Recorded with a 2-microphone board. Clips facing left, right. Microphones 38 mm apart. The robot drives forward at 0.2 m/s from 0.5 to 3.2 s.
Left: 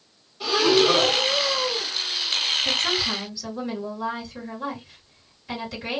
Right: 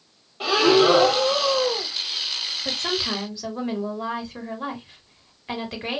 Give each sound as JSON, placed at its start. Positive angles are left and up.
{"t": 0.4, "sound": "breathing", "side_deg": -45, "distance_m": 1.2}
{"t": 2.6, "sound": "a woman speaking", "side_deg": -45, "distance_m": 1.5}